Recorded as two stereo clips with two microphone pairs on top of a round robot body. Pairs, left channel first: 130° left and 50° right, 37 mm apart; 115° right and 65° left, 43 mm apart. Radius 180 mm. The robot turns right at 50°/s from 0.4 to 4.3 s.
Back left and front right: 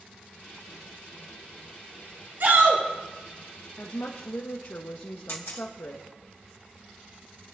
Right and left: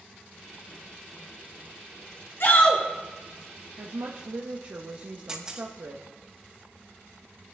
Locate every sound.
2.4 s a shout: 85° right, 3.5 m; by 2.8 s 65° right, 3.5 m
3.8 s a woman speaking: 80° left, 0.8 m; by 6.3 s 105° left, 0.8 m
5.3 s a camera shutter: 135° left, 1.1 m